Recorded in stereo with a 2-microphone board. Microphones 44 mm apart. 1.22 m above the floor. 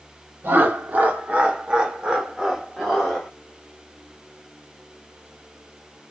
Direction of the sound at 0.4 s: 55° right (ahead or behind).